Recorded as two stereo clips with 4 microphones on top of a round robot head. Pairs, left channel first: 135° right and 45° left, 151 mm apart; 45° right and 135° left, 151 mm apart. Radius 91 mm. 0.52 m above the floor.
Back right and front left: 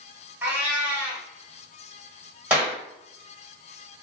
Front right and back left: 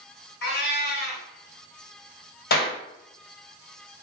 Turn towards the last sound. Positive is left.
turn(degrees=-35)